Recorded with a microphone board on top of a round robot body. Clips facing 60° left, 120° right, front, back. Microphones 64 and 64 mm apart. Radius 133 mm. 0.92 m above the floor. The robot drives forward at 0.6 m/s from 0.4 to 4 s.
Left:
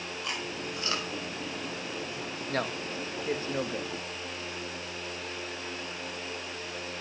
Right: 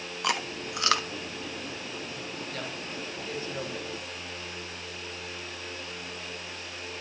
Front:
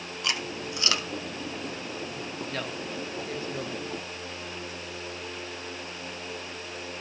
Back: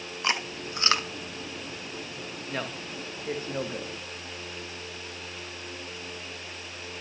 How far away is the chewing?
About 1.5 m.